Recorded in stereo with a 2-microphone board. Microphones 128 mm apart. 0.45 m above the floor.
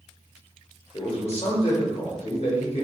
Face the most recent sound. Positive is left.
turn(degrees=55)  # may be behind; listen again after turning